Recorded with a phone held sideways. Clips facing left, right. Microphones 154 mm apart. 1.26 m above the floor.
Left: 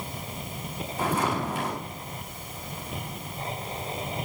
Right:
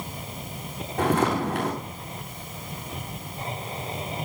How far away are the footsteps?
About 7 m.